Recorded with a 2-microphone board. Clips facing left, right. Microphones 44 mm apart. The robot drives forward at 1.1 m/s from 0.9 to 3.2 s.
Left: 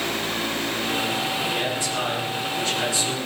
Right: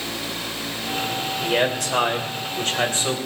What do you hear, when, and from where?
1.4 s a man speaking: 65° right (ahead or behind), 3 m; by 3.2 s 40° right (ahead or behind), 4 m